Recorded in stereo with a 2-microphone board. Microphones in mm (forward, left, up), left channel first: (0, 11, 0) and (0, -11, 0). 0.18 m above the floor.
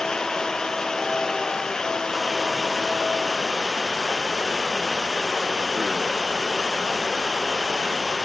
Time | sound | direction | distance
0.0 | running water | 30° left (ahead or behind) | ?